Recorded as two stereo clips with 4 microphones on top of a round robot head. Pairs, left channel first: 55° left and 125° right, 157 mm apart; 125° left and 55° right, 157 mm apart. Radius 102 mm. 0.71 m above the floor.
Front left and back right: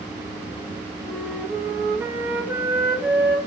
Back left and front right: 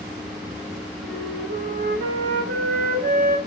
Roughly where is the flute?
Ahead right.